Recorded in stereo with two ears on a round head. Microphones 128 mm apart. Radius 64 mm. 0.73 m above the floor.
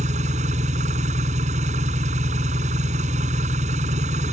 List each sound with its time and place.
0.0 s an engine running: 50° right (ahead or behind)